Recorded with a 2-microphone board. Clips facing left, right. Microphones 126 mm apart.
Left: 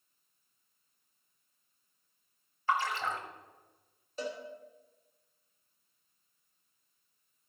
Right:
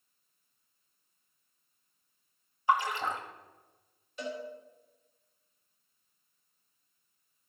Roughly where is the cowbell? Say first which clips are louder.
Even; left.